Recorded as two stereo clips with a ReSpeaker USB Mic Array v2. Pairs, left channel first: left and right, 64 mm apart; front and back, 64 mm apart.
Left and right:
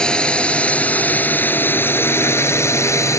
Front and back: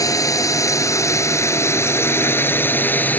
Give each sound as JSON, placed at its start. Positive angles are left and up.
{"t": 0.0, "sound": "a drone", "azimuth_deg": 15}